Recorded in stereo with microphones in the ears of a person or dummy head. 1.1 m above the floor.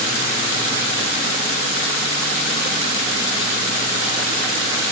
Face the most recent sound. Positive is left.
No sound to turn to.